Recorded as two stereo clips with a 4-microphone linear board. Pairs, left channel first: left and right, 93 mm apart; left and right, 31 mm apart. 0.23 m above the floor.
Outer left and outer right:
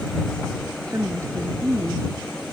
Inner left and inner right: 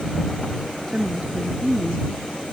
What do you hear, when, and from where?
0.9 s a woman speaking: 35° right (ahead or behind)